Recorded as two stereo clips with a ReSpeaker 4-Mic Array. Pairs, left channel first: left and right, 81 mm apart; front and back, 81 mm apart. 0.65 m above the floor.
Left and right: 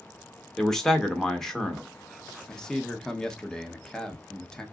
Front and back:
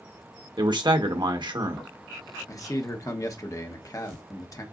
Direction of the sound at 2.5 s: 15° left.